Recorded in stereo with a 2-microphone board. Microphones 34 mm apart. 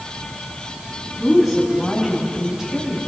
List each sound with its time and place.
1.2 s a woman speaking: 5° right (ahead or behind), 5 m; by 3.1 s 15° right (ahead or behind), 5 m